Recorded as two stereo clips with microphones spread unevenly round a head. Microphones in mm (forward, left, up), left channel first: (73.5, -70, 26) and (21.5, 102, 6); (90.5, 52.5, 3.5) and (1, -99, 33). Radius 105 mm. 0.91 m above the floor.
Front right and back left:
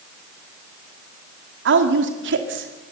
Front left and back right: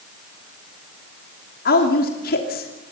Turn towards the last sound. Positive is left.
turn(degrees=100)